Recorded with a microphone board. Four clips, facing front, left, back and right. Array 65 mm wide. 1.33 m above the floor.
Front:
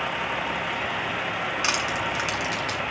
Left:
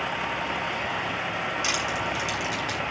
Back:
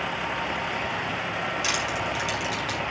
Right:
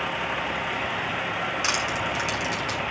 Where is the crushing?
35° right, 7 m.